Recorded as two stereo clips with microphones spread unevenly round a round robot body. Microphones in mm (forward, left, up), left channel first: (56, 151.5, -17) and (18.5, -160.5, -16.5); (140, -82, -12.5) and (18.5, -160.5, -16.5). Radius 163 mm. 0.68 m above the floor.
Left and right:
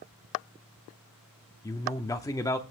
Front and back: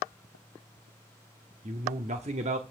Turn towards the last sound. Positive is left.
turn(degrees=160)